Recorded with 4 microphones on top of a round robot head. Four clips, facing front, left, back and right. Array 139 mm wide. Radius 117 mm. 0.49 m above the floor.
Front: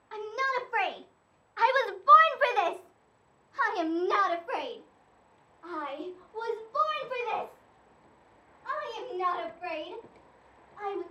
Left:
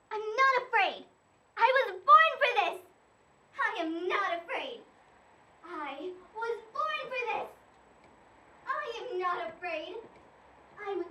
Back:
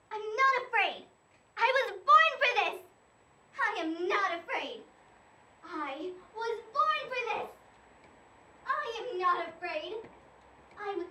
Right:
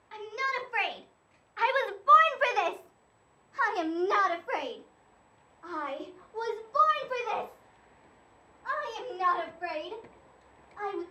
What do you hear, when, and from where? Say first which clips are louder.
0.1 s a shout: left 7 dB, back 3 dB; 90° left, 1.3 m; by 11.0 s 60° right, 5 m